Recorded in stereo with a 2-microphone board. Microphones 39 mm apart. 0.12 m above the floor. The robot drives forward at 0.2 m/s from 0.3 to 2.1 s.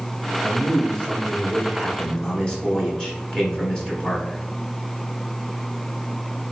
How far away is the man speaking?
About 1.6 m.